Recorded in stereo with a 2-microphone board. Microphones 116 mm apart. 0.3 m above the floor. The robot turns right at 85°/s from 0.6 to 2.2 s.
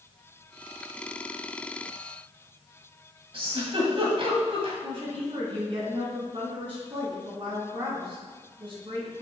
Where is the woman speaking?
50° right (ahead or behind), 3 m.